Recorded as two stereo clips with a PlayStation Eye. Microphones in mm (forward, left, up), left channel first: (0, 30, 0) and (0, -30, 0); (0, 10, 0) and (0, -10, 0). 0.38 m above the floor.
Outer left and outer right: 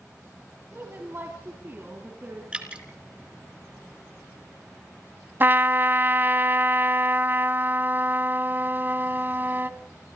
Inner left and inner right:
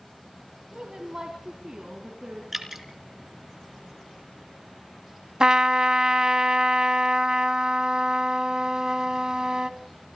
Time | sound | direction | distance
0.7 | a woman speaking | 40° right (ahead or behind) | 3 m
2.5 | dripping | 15° right (ahead or behind) | 4 m
5.4 | a trumpet | 35° right (ahead or behind) | 1.1 m